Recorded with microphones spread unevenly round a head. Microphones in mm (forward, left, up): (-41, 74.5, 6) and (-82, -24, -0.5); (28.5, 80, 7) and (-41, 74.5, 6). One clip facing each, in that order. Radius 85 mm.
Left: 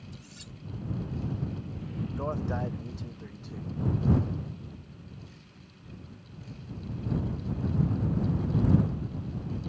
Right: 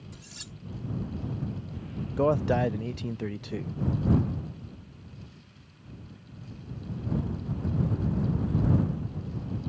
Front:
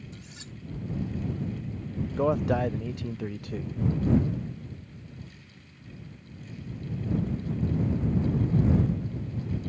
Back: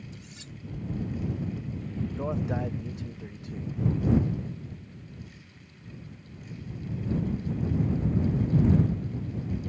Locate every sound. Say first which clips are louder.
0.1 s cutlery clinking: even, front 1 dB; 65° right
2.2 s a man speaking: right 10 dB, front 8 dB; 60° right